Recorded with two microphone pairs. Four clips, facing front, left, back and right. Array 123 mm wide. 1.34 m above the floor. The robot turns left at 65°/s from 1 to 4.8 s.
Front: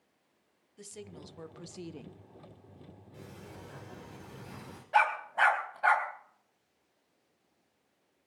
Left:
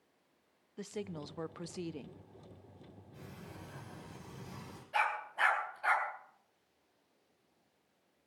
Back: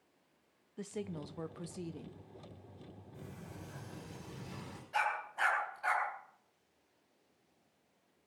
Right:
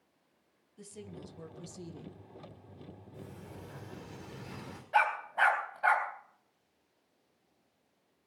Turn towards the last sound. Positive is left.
turn(degrees=-40)